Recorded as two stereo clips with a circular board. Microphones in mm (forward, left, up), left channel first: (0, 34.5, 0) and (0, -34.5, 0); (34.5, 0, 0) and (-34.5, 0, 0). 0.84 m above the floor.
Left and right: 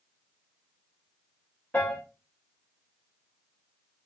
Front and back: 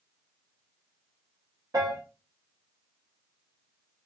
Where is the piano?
155° left, 0.6 m.